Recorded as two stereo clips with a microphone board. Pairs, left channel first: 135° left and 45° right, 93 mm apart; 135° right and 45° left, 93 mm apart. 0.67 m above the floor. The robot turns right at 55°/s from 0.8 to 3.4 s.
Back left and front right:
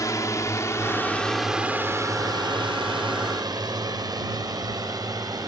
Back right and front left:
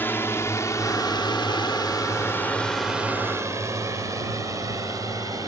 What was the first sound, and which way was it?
A drone, 165° left.